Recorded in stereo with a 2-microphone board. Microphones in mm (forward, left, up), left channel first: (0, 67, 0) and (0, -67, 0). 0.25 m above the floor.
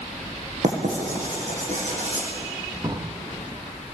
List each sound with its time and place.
0.6 s writing: 65° right (ahead or behind), 8.5 m
2.8 s a drawer: 30° right (ahead or behind), 3 m